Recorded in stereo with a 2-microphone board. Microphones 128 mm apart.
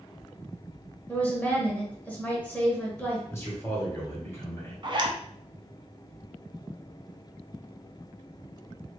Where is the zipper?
45° right (ahead or behind), 0.5 m.